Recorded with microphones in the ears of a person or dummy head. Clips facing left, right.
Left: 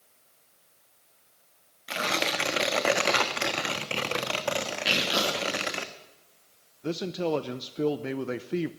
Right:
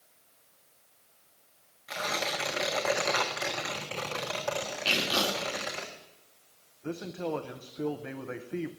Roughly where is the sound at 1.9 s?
Left.